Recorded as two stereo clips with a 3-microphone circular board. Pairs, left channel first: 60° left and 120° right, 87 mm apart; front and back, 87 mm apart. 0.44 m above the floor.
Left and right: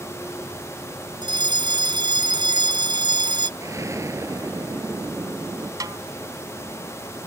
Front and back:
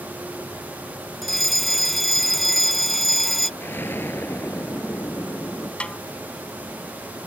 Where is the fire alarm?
90° right.